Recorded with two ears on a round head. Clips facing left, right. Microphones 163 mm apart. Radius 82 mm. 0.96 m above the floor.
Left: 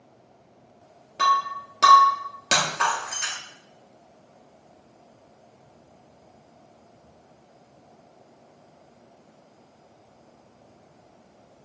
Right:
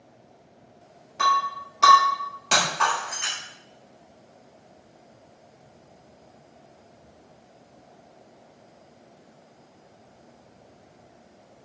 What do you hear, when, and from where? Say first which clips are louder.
1.2 s breaking glass: even; 50° left (ahead or behind), 2.5 m